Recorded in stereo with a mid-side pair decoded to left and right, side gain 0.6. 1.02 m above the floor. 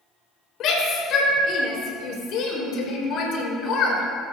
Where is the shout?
55° left, 4 m.